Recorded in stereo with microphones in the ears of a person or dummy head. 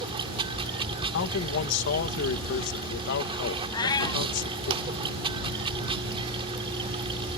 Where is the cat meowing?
25° left (ahead or behind).